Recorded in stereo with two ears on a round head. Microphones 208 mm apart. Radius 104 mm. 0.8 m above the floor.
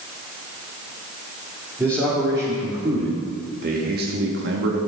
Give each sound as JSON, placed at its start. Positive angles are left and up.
{"t": 1.8, "sound": "a man speaking", "side_deg": -10, "distance_m": 2.0}